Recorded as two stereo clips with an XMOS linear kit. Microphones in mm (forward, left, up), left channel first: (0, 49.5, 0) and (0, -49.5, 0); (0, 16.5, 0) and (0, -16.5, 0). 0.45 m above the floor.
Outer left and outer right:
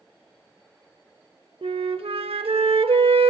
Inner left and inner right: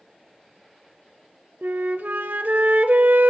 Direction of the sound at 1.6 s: 70° right (ahead or behind).